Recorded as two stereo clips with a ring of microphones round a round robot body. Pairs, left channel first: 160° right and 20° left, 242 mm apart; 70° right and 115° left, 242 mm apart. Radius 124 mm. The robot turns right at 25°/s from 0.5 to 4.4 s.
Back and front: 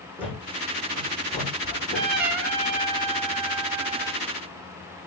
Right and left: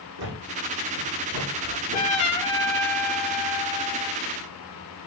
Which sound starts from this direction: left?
A thud, at 0.2 s.